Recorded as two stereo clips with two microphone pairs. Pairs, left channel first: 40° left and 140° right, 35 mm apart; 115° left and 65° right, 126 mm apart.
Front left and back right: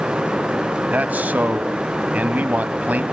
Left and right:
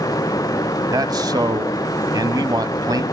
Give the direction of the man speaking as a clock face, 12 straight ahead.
4 o'clock.